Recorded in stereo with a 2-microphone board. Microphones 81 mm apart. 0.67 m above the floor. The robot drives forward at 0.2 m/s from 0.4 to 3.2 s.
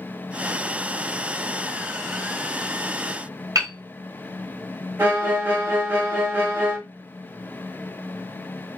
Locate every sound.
3.5 s hammering: 45° right (ahead or behind), 2.5 m
5.0 s a violin: 25° right (ahead or behind), 1.6 m